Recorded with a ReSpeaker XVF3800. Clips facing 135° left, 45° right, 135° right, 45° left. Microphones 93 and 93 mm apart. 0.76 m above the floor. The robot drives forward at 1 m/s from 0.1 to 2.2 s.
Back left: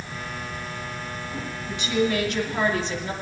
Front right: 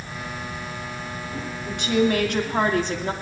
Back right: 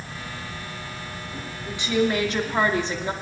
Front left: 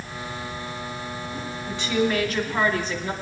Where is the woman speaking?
60° right, 2.0 m; by 3.1 s 75° right, 1.8 m.